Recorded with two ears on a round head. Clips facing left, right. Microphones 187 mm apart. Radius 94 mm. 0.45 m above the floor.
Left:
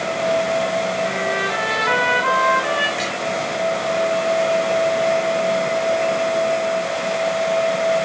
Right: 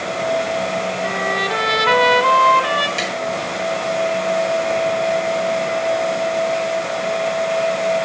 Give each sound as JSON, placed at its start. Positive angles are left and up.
{"t": 1.0, "sound": "a trumpet", "side_deg": -55, "distance_m": 3.5}
{"t": 3.0, "sound": "tapping", "side_deg": -50, "distance_m": 8.0}